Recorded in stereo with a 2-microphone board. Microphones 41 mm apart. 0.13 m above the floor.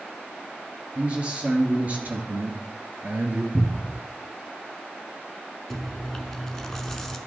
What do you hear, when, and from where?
0.9 s a man speaking: 30° right (ahead or behind), 2.5 m; by 3.4 s 55° right (ahead or behind), 2 m
3.5 s a cupboard door: centre (ahead or behind), 1.1 m
5.7 s chewing: 10° left (ahead or behind), 0.7 m